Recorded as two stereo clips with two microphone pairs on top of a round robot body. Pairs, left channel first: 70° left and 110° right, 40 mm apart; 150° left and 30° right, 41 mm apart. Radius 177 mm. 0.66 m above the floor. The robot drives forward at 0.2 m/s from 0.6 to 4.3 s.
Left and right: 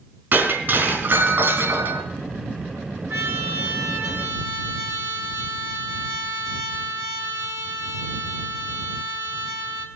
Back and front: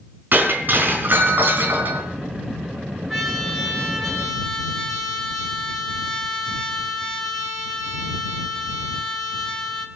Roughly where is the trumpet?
Behind right.